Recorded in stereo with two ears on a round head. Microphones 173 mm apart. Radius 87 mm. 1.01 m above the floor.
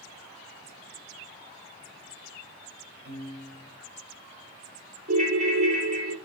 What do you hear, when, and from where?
3.0 s a piano: 55° right (ahead or behind), 1.2 m
5.1 s a ringtone: 40° right (ahead or behind), 1.1 m